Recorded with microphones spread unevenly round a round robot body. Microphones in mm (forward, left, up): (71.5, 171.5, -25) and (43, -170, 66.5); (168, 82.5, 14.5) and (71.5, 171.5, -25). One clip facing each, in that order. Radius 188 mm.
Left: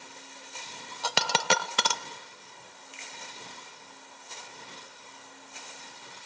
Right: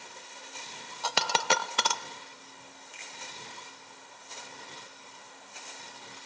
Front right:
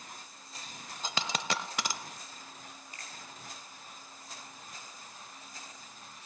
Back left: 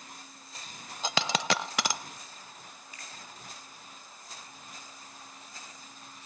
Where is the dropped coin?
110° left, 0.5 m.